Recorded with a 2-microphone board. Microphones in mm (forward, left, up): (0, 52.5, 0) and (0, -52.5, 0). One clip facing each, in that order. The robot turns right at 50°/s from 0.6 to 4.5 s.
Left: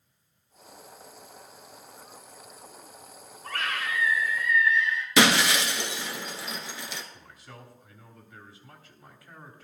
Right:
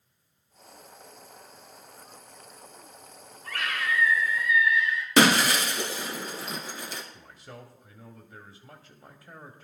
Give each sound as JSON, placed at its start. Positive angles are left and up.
{"t": 3.4, "sound": "a scream", "azimuth_deg": 135, "distance_m": 5.5}
{"t": 5.2, "sound": "breaking glass", "side_deg": -45, "distance_m": 1.3}
{"t": 7.1, "sound": "a man speaking", "side_deg": -30, "distance_m": 1.2}